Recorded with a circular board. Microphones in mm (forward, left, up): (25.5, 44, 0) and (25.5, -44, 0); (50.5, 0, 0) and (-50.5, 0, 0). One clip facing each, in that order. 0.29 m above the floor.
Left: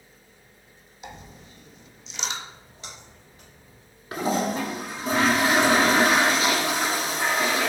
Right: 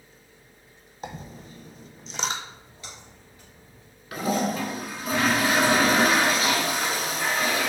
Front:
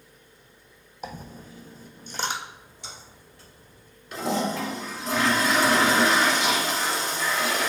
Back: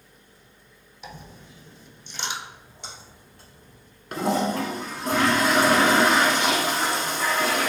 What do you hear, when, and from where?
1.0 s a dropped coin: 45° right, 0.7 m
2.4 s a splash: 150° left, 2 m
4.1 s a toilet flushing: 150° left, 0.9 m